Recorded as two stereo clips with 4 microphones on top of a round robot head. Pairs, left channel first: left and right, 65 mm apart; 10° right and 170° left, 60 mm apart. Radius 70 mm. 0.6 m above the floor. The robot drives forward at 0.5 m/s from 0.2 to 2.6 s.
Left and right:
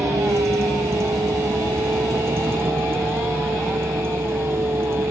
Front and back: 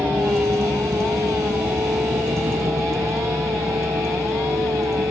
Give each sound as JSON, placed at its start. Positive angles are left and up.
{"t": 0.0, "sound": "a vehicle", "azimuth_deg": -130}